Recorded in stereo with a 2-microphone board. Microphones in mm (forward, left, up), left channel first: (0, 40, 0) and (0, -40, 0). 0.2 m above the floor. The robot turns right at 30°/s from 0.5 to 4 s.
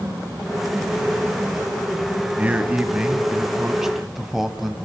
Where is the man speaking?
20° right (ahead or behind), 1.0 m; by 4.8 s 5° right (ahead or behind), 1.0 m.